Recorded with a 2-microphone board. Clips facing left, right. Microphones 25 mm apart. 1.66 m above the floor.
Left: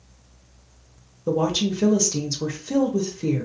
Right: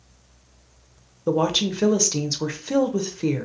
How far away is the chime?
No chime in this recording.